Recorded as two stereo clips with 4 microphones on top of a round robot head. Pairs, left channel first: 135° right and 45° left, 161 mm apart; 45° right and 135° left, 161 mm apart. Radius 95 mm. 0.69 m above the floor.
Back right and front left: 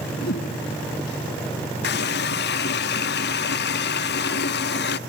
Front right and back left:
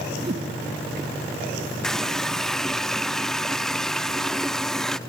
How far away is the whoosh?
About 2 m.